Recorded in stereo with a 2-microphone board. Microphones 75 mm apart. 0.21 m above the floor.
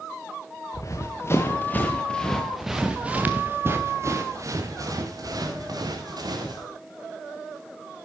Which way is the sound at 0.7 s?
45° left (ahead or behind).